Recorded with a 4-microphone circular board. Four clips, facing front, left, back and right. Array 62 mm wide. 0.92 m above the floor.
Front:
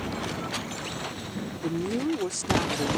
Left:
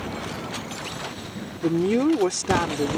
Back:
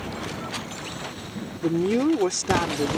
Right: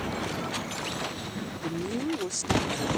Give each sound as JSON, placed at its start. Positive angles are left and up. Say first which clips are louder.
{"t": 1.6, "sound": "a woman speaking", "louder": "left 12 dB, back 7 dB", "azimuth_deg": 125}